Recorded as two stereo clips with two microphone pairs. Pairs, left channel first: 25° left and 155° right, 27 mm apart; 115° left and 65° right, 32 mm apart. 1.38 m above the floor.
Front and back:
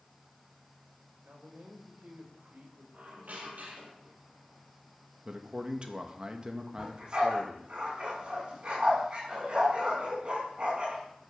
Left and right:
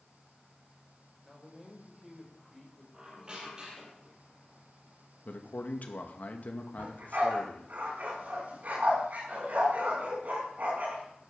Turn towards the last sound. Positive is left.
turn(degrees=-100)